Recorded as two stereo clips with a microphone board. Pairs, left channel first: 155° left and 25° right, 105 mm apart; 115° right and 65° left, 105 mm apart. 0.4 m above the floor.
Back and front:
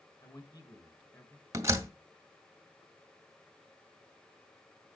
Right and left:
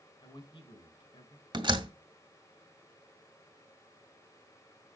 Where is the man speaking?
155° right, 3 m; by 1.4 s 140° right, 3 m.